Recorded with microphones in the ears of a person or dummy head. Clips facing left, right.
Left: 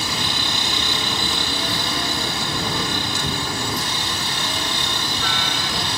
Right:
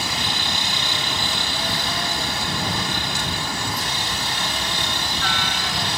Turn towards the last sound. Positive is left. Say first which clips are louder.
# left 1 dB
turn(degrees=70)  # may be behind; listen again after turning